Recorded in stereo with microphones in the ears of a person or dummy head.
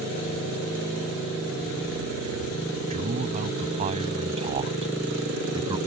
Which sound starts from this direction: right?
A man speaking, at 2.9 s.